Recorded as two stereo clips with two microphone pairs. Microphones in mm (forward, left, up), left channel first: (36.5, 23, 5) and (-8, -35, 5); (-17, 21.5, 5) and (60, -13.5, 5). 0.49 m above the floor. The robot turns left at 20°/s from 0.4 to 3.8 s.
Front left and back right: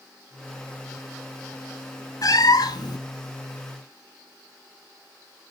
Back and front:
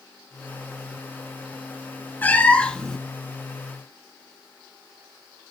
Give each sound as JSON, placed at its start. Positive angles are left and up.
{"t": 2.2, "sound": "a cat meowing", "azimuth_deg": 85, "distance_m": 1.0}